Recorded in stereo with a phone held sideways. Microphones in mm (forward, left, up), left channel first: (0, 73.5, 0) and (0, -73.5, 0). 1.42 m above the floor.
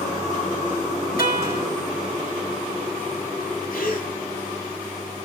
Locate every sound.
1.2 s a guitar: 80° left, 7 m
3.7 s a gasp: 80° left, 3.5 m